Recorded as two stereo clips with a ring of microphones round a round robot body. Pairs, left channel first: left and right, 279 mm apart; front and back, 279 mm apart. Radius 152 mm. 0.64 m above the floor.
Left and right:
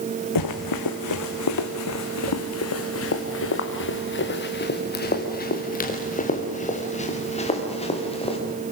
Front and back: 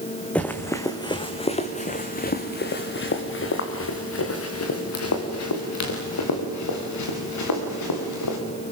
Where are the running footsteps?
85° left, 2.5 m; by 8.4 s 20° left, 6 m.